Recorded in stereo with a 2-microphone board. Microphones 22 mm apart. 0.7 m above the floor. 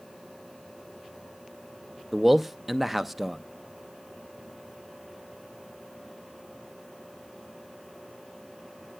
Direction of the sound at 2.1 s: 5° right (ahead or behind).